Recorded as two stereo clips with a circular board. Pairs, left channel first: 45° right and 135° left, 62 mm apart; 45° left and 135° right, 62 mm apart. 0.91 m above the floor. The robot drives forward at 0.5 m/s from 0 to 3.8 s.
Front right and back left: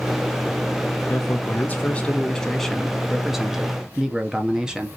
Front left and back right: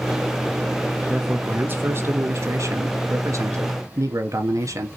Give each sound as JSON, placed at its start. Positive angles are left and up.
{"t": 1.1, "sound": "a man speaking", "azimuth_deg": -75, "distance_m": 1.0}